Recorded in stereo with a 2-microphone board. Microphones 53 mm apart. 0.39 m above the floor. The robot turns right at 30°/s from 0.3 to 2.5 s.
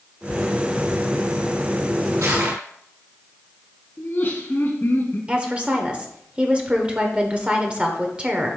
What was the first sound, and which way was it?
Crushing, 75° right (ahead or behind).